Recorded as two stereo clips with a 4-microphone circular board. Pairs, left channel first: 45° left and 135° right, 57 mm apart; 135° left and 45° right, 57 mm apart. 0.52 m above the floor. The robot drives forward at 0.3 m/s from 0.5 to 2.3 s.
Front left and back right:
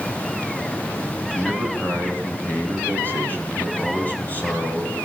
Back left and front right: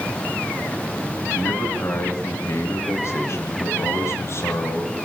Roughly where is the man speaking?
Left.